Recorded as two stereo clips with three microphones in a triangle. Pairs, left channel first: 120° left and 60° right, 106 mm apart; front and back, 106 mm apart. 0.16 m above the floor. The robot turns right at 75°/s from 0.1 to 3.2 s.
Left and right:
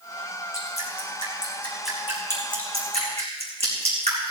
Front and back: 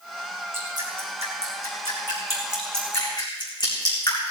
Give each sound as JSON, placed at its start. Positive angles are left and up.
{"t": 0.5, "sound": "dripping", "azimuth_deg": 115, "distance_m": 4.0}